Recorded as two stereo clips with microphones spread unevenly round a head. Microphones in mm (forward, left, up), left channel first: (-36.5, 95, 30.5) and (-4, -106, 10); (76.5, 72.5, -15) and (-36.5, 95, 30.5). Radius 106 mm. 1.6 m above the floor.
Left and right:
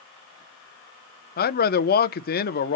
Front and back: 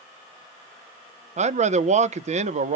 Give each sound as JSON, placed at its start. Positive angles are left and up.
{"t": 1.4, "sound": "a man speaking", "azimuth_deg": 145, "distance_m": 0.6}